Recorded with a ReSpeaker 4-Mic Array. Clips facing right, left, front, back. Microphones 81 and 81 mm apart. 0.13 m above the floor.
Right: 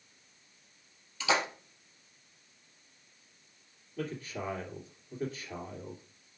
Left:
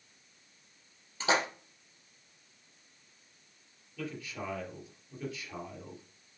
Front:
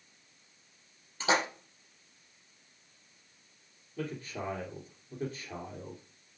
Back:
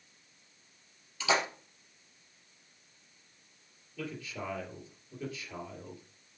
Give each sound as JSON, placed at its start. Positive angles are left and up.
{"t": 1.2, "sound": "a splash", "azimuth_deg": 45, "distance_m": 2.0}
{"t": 4.0, "sound": "a man speaking", "azimuth_deg": -40, "distance_m": 2.5}